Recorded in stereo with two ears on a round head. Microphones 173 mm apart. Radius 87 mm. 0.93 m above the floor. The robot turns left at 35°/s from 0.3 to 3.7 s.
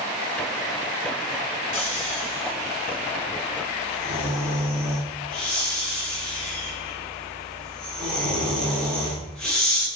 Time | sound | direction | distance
1.7 | snoring | 75° left (ahead or behind) | 8 m